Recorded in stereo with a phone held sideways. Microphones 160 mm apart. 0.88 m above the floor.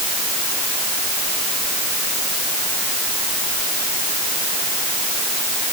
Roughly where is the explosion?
No explosion in this recording.